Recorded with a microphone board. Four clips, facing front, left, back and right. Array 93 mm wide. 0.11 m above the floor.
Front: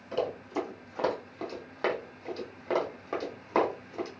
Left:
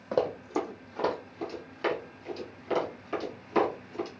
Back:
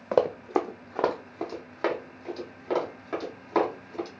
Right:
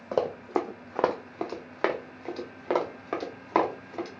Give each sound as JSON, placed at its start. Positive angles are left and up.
{"t": 0.1, "sound": "running footsteps", "azimuth_deg": -175, "distance_m": 0.5}